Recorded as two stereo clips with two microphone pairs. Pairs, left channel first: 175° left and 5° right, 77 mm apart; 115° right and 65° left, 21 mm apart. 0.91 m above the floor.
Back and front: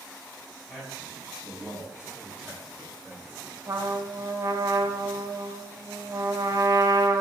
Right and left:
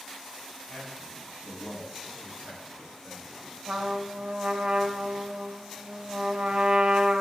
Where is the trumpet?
40° left, 2 m.